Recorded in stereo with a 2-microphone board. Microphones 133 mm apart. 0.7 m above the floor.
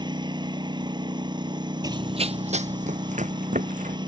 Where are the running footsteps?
30° right (ahead or behind); by 4.0 s 75° right (ahead or behind).